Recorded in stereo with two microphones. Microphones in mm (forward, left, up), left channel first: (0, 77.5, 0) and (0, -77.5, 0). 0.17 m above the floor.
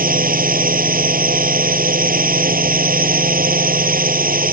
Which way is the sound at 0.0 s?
70° right (ahead or behind).